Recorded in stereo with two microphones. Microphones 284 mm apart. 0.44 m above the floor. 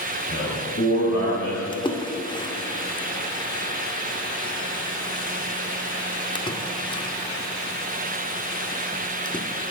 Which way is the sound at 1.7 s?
15° left (ahead or behind).